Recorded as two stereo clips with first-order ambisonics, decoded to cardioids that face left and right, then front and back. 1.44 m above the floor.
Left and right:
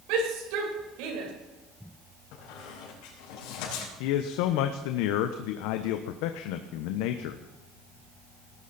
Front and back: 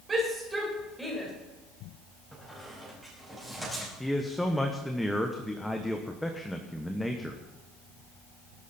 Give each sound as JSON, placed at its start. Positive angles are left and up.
{"t": 0.1, "sound": "a shout", "azimuth_deg": -110, "distance_m": 5.0}
{"t": 2.3, "sound": "a squeak", "azimuth_deg": 90, "distance_m": 5.5}
{"t": 4.0, "sound": "a man speaking", "azimuth_deg": 85, "distance_m": 1.1}